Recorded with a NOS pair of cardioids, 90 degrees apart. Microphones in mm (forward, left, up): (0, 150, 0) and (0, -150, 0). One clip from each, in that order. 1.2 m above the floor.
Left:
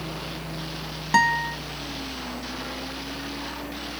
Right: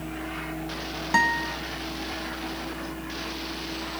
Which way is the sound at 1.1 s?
15° left.